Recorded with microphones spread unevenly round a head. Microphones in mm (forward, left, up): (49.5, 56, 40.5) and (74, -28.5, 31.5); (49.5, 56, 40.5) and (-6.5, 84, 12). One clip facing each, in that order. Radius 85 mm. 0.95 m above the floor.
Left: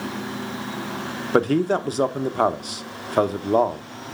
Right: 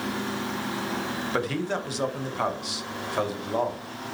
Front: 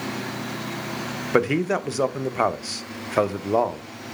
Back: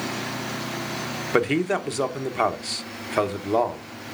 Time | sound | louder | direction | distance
1.3 | a man speaking | left 11 dB, front 1 dB | 75° left | 0.9 m